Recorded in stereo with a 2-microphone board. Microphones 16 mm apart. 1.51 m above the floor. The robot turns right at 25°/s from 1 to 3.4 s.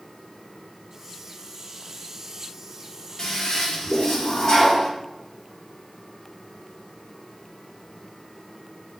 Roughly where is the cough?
No cough in this recording.